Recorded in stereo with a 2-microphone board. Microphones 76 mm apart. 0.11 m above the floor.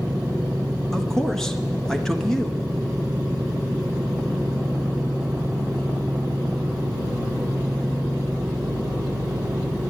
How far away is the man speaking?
About 1.1 m.